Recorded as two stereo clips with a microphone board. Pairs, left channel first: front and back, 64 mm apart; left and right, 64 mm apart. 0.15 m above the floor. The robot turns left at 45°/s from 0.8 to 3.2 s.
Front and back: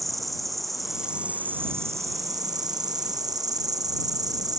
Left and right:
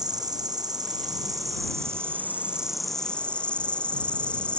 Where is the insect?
90° right; by 4.6 s 160° left.